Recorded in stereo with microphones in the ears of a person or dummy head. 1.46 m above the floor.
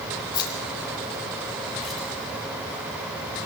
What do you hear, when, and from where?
0.3 s keys jangling: 25° left (ahead or behind), 4 m; by 3.5 s 15° right (ahead or behind), 6.5 m